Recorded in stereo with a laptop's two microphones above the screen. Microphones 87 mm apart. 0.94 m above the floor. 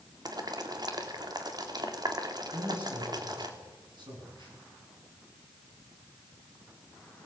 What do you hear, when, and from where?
0.2 s boiling: 50° right (ahead or behind), 2.5 m
2.5 s a man speaking: 60° right (ahead or behind), 9.5 m